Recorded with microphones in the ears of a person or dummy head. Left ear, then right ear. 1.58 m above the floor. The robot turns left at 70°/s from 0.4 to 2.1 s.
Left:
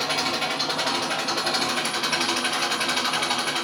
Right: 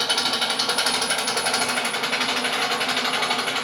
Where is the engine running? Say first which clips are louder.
Right 2 dB; 40° right, 0.9 m; by 3.6 s 160° right, 0.9 m.